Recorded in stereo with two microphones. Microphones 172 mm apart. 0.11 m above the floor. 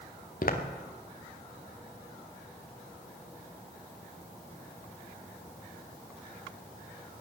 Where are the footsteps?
60° left (ahead or behind), 2.5 m.